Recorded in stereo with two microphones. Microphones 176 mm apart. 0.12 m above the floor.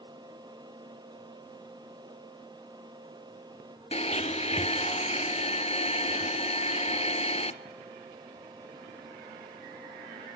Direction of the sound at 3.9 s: 35° left (ahead or behind).